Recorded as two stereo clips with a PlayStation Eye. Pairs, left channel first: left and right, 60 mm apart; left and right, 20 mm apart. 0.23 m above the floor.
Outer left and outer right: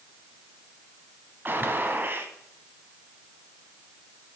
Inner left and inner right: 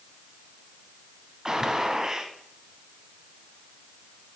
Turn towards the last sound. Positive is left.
turn(degrees=-35)  # may be behind; listen again after turning